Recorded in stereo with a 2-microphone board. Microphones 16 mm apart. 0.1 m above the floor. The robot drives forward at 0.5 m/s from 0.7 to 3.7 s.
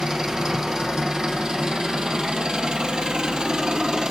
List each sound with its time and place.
0.0 s an engine running: 35° right (ahead or behind), 1.7 m; by 4.1 s 65° right (ahead or behind), 1.1 m